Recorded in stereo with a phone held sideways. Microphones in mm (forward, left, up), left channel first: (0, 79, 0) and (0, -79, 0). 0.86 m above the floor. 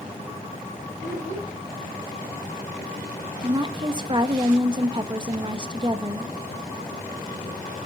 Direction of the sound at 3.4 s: 30° right (ahead or behind).